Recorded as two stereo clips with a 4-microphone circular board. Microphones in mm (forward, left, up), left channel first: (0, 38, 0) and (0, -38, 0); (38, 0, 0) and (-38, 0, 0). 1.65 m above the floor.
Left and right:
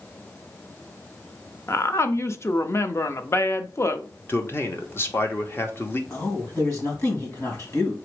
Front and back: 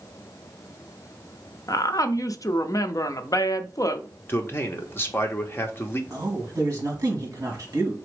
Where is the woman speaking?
35° left, 0.5 m.